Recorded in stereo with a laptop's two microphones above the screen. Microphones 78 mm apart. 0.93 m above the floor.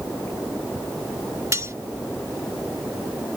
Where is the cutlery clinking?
40° right (ahead or behind).